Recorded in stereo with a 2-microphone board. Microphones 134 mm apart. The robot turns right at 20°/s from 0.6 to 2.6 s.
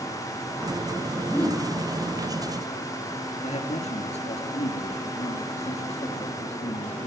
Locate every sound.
1.3 s a whoosh: 15° left (ahead or behind), 4.5 m; by 1.7 s 5° left (ahead or behind), 4.5 m
3.4 s a man speaking: 55° left (ahead or behind), 4.5 m